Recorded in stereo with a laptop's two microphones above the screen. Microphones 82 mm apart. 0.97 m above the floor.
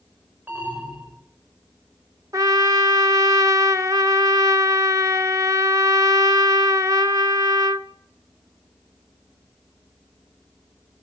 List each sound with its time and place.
0.5 s an alarm: 20° right (ahead or behind), 7 m
2.3 s a trumpet: 40° right (ahead or behind), 0.9 m